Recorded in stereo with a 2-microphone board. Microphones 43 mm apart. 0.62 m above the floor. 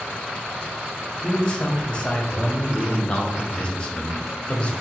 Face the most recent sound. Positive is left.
turn(degrees=25)  # may be behind; listen again after turning